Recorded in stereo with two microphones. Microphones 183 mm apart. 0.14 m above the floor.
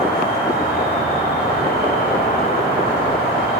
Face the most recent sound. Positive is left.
turn(degrees=55)  # may be behind; listen again after turning